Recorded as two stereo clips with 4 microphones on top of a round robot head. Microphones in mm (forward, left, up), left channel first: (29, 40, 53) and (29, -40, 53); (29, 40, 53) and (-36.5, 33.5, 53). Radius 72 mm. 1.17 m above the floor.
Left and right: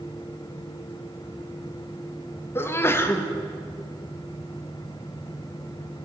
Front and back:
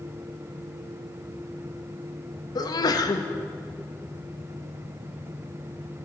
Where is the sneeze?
30° left, 1.2 m.